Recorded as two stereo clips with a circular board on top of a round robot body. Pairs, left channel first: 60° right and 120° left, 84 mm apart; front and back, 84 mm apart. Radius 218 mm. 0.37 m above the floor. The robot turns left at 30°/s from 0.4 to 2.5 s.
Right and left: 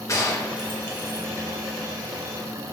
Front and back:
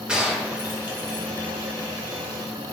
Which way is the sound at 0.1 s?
100° right.